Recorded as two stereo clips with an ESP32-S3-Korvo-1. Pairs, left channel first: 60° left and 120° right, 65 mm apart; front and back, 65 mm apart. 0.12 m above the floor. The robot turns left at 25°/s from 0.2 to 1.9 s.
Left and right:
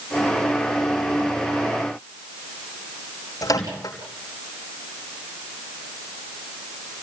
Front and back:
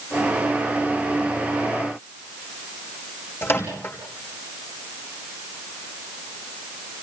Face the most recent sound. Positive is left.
turn(degrees=50)